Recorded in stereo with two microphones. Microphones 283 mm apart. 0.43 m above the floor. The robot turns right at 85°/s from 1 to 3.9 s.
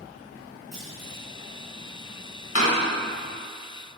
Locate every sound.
0.7 s a clunk: 70° right (ahead or behind), 4 m; by 1.2 s 80° right, 4 m
2.5 s a door slam: 60° left (ahead or behind), 2 m; by 2.7 s 50° left (ahead or behind), 2 m